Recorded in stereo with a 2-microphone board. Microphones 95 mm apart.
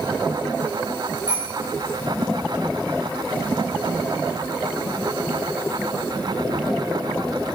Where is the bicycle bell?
55° right (ahead or behind), 7.5 m.